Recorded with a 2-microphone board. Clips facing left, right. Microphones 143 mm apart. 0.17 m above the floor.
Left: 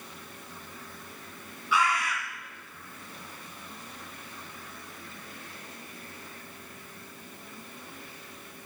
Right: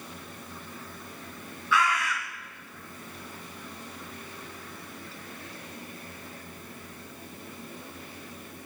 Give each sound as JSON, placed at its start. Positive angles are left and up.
{"t": 1.7, "sound": "a bird", "side_deg": 15, "distance_m": 1.5}